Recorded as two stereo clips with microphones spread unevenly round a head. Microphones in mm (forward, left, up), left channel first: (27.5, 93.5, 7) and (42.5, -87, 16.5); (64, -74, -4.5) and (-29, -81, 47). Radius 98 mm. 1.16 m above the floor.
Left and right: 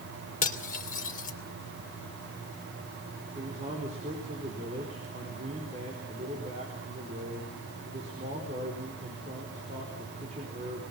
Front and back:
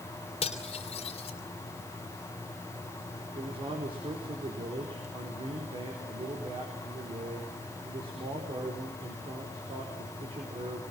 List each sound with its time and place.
0.4 s cutlery clinking: 50° left, 2.5 m
3.4 s a man speaking: 145° right, 4.5 m